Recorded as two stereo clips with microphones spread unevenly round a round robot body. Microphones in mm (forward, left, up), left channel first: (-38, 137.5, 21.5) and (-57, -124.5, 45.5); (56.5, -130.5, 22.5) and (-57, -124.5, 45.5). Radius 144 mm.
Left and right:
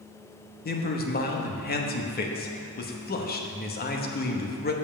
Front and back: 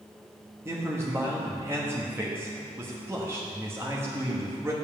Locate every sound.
0.7 s a man speaking: 100° left, 1.0 m